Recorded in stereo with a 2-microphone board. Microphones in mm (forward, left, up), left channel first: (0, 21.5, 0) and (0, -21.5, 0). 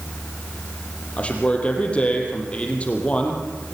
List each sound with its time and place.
1.2 s a man speaking: 30° left (ahead or behind), 5 m